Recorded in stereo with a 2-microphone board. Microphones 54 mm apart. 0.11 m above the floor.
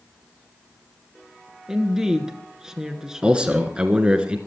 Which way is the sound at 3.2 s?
20° right (ahead or behind).